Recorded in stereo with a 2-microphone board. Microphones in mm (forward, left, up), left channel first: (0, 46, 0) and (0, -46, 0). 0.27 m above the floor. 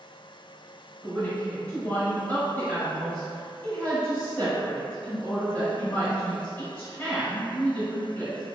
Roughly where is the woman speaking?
Left.